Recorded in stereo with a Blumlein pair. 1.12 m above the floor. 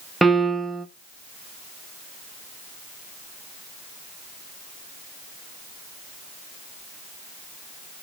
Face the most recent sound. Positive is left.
turn(degrees=-5)